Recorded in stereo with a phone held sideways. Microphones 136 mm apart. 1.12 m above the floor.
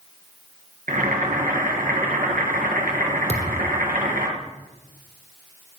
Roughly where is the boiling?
Right.